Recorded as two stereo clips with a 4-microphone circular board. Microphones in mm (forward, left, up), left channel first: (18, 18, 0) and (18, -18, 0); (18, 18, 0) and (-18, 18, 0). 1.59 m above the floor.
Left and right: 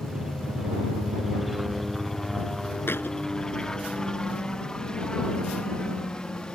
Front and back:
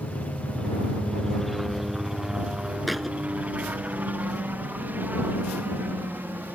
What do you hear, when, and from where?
0.0 s a helicopter: 25° right; by 6.6 s 155° left
2.9 s a thud: 90° left